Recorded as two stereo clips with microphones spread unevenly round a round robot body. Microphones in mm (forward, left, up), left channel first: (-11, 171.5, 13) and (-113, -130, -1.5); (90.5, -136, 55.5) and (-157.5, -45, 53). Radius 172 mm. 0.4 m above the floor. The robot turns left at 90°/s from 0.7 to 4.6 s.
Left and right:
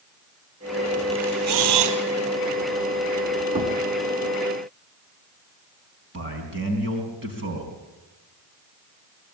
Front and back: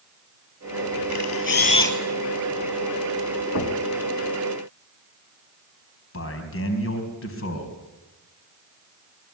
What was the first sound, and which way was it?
A camera shutter, 30° right.